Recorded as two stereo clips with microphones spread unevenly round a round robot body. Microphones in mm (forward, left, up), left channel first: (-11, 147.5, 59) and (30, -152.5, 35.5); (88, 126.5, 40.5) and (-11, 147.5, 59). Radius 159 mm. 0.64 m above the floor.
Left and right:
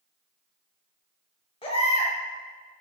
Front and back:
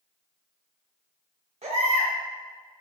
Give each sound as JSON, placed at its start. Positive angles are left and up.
{"t": 1.6, "sound": "a baby crying", "azimuth_deg": 170, "distance_m": 1.4}